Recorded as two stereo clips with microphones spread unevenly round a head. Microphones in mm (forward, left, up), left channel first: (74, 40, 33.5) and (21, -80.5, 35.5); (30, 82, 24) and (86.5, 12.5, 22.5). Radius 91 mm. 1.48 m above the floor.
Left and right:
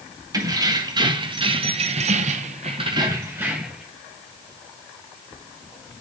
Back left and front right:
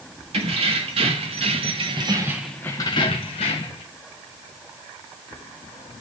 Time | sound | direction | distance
0.3 | keys jangling | 55° right | 1.9 m